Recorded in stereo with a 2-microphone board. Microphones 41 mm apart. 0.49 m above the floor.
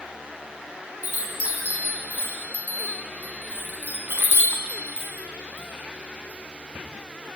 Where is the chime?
50° right (ahead or behind), 5 m.